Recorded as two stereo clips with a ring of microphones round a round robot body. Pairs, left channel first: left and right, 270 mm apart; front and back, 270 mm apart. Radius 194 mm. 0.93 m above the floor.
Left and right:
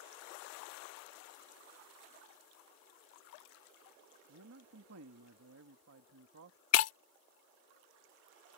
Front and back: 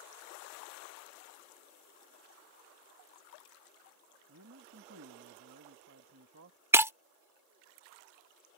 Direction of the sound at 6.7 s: 100° left.